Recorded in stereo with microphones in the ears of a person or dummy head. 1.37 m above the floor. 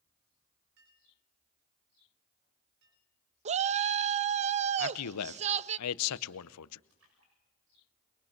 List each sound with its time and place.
0.8 s a clink: 70° right (ahead or behind), 3.5 m
3.5 s a shout: 40° right (ahead or behind), 0.6 m
4.8 s a man speaking: 85° left, 0.8 m
6.9 s a splash: 90° right, 7 m